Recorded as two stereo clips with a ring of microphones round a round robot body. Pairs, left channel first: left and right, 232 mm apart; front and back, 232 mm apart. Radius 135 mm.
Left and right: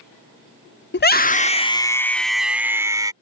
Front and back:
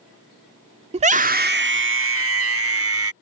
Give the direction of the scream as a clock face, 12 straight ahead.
8 o'clock.